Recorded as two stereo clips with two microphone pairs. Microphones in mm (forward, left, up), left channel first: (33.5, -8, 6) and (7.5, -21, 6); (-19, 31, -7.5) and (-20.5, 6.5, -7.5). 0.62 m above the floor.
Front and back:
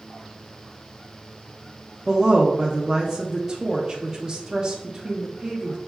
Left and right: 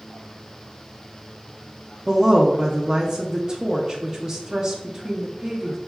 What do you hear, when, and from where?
2.1 s a woman speaking: 120° right, 0.7 m